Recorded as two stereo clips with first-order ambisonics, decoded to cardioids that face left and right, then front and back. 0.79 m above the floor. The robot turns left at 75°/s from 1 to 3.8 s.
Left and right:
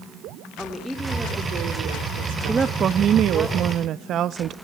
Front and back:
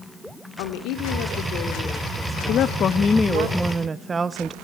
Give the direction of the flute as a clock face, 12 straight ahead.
I don't hear a flute.